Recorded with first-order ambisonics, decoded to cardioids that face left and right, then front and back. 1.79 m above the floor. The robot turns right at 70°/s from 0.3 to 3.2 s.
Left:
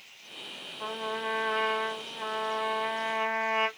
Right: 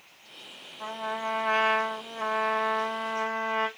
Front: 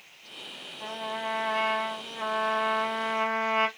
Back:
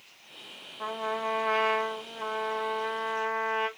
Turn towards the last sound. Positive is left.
turn(degrees=-10)